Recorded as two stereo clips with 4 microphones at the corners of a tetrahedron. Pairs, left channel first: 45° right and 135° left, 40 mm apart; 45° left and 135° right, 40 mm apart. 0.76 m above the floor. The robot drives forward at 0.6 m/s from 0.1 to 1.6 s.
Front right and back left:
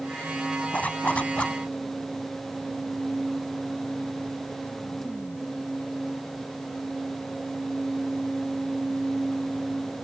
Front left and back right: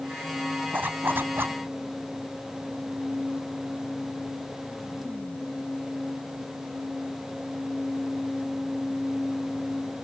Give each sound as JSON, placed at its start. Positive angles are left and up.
{"t": 0.7, "sound": "a zipper", "azimuth_deg": -95}